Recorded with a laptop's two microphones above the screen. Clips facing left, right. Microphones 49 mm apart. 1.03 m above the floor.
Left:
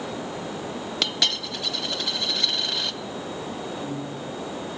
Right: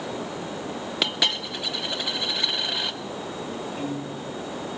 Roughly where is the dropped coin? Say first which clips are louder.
Right 2 dB; centre.